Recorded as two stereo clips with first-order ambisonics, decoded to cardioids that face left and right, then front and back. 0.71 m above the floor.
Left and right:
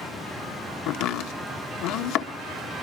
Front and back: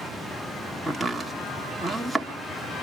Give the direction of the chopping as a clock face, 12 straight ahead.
9 o'clock.